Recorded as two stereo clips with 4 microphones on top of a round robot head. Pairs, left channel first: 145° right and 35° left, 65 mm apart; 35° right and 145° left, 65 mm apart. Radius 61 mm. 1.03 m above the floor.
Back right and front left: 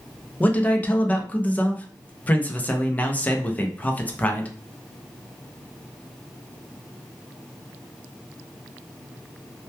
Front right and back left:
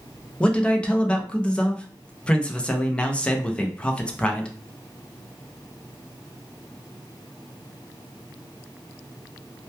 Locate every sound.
0.4 s a man speaking: 95° right, 0.6 m